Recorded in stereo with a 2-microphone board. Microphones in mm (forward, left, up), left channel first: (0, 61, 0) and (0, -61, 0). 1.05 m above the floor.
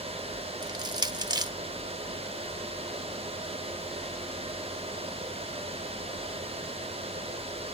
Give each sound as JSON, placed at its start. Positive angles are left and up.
{"t": 0.6, "sound": "crushing", "side_deg": -35, "distance_m": 0.7}